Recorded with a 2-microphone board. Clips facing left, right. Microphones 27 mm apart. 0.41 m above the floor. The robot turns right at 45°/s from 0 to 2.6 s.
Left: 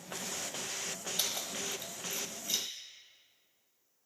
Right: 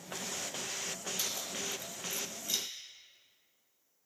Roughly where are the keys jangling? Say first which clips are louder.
Left 3 dB; left.